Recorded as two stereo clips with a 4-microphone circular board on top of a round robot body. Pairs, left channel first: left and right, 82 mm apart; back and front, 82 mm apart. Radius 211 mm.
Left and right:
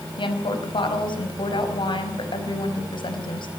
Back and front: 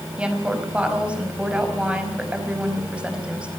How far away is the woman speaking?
About 4.5 m.